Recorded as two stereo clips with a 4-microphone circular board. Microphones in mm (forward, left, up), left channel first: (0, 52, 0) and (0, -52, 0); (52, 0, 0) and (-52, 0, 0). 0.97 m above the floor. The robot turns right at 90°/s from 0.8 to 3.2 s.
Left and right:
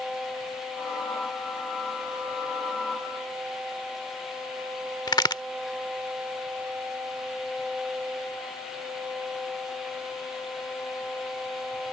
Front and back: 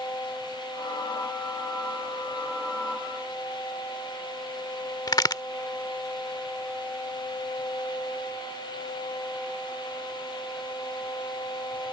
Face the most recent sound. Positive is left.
turn(degrees=45)